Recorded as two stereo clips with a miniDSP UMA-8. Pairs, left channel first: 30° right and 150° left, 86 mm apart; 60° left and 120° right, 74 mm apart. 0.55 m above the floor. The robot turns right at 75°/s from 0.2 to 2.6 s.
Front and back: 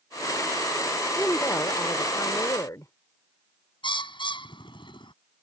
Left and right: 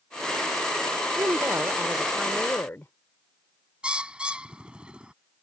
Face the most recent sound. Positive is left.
turn(degrees=-45)